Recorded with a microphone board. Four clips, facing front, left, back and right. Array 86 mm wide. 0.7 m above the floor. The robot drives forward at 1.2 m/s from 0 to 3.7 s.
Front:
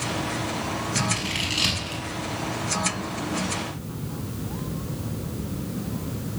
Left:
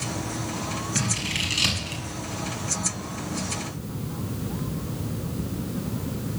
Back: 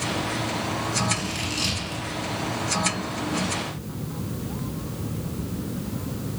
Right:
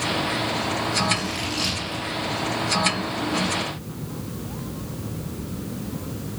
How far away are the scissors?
About 7.5 m.